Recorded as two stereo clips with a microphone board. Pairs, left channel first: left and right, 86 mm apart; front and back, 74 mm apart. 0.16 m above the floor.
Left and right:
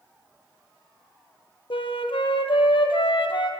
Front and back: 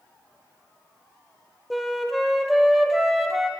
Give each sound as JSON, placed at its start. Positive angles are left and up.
{"t": 1.7, "sound": "a flute", "azimuth_deg": 90, "distance_m": 0.8}